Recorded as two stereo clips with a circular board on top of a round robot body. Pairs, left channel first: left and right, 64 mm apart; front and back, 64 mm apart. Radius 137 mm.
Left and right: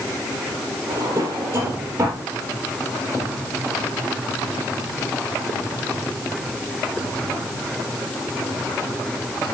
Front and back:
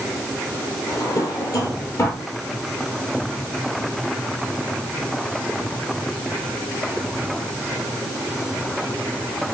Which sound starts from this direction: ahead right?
A drawer, at 0.9 s.